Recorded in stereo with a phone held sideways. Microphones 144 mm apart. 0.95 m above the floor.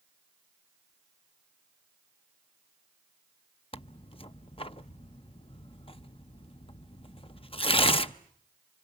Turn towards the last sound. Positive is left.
turn(degrees=40)  # may be behind; listen again after turning